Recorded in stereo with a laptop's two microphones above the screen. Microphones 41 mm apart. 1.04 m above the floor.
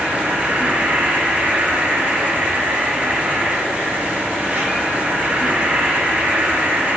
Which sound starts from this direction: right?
An insect, at 0.0 s.